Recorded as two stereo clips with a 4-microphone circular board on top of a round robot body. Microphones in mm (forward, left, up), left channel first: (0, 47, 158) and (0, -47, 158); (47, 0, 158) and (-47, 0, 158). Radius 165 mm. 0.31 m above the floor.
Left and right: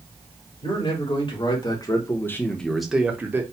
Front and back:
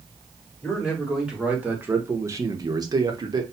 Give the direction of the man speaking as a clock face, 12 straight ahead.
9 o'clock.